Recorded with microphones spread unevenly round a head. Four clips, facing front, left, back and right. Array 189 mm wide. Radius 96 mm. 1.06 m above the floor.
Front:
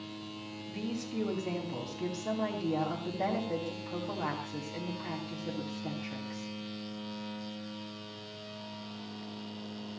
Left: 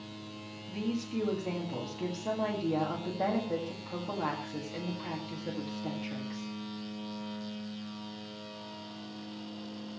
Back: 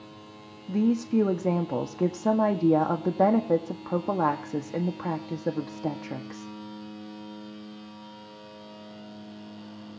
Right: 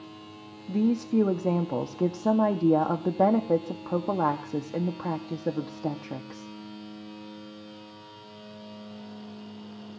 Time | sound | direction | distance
0.7 | a woman speaking | 135° right | 1.8 m